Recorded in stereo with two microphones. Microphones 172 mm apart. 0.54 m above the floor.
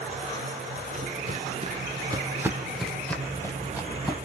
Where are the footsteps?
40° right (ahead or behind), 0.8 m; by 4.2 s 20° left (ahead or behind), 1.1 m.